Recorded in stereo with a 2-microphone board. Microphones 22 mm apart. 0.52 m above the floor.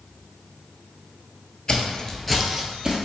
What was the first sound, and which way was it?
Footsteps, 45° left (ahead or behind).